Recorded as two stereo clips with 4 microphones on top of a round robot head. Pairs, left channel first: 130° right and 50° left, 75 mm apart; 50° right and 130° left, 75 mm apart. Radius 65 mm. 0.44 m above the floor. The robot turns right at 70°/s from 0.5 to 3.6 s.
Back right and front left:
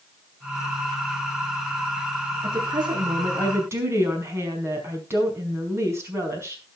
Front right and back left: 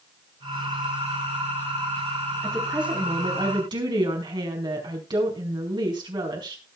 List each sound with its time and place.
2.4 s a woman speaking: 25° left, 5 m; by 6.6 s 110° left, 5 m